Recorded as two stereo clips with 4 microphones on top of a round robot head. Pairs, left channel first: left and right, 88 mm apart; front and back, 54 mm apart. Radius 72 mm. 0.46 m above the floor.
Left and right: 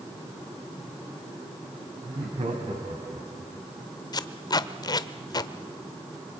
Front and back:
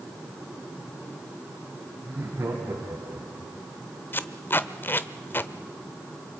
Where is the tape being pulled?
50° left, 0.8 m.